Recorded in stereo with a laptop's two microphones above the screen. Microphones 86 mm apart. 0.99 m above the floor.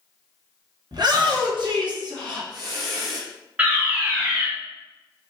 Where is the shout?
55° right (ahead or behind), 0.9 m; by 3.2 s 50° right (ahead or behind), 1.7 m.